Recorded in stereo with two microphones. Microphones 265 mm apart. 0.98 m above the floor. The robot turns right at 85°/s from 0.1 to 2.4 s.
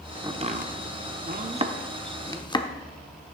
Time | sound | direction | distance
0.2 | chopping | 15° right (ahead or behind) | 0.6 m